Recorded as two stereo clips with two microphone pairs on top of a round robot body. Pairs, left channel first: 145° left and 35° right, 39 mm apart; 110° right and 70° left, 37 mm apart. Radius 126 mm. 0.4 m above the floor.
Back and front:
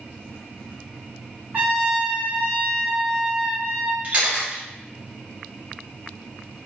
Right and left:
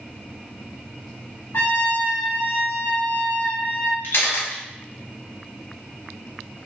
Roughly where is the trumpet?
Right.